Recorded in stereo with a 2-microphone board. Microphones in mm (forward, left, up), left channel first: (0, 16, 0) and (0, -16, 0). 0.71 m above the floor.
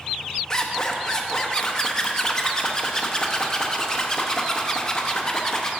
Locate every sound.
0.5 s a zipper: 25° left (ahead or behind), 0.8 m